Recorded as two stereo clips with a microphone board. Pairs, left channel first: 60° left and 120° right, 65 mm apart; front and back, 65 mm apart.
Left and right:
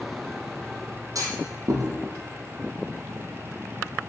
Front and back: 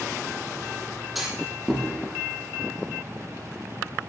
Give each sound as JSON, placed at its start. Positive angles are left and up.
{"t": 1.1, "sound": "a clunk", "azimuth_deg": -90, "distance_m": 2.5}